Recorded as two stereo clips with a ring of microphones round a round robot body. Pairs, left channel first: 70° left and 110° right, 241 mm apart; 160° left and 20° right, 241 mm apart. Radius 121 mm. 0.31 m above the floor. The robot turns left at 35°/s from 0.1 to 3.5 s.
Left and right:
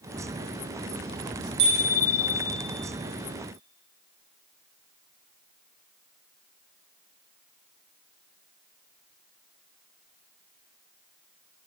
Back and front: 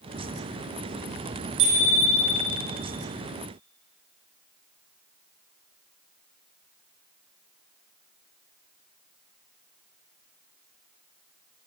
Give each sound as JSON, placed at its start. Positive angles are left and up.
{"t": 1.6, "sound": "a bicycle bell", "azimuth_deg": -65, "distance_m": 9.5}